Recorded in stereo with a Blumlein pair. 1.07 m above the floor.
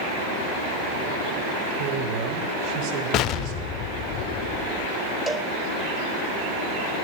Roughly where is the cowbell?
Ahead.